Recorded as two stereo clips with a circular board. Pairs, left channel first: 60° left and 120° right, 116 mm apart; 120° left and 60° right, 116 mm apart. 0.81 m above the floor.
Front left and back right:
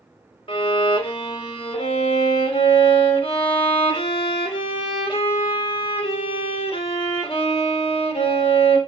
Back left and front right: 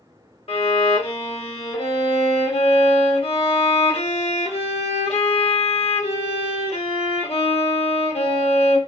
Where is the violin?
95° left, 1.3 m.